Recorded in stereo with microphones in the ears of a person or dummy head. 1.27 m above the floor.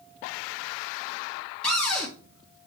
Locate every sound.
1.6 s a cupboard door: 5° left (ahead or behind), 2.5 m